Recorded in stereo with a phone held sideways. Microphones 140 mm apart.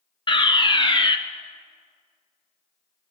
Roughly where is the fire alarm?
Left.